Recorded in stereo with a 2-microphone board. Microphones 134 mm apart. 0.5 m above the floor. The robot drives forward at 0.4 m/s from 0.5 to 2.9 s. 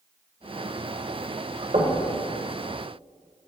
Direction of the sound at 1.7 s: 70° right (ahead or behind).